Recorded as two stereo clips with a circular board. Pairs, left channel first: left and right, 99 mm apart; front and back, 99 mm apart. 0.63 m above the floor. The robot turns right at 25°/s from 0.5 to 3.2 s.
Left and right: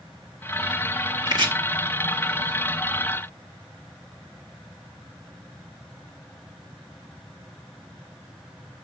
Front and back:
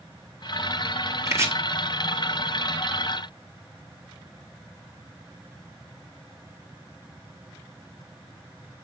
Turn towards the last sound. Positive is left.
turn(degrees=-80)